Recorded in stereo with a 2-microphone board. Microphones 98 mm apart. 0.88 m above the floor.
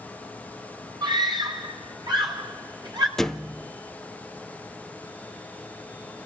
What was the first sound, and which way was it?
A scream, 45° right (ahead or behind).